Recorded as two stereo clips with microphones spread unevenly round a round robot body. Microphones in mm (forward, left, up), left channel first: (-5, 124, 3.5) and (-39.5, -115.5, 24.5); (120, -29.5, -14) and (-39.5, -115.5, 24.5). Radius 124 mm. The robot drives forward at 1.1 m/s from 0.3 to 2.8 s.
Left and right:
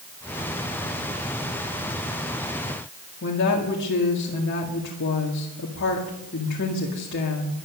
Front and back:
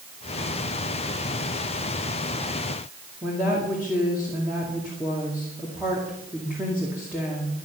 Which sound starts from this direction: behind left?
A woman speaking, at 3.2 s.